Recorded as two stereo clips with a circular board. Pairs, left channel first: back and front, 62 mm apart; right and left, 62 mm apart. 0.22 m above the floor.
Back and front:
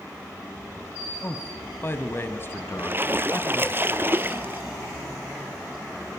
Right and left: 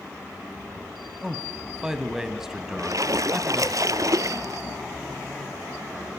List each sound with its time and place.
1.2 s a man speaking: 170° left, 1.5 m
2.8 s a splash: 60° left, 0.8 m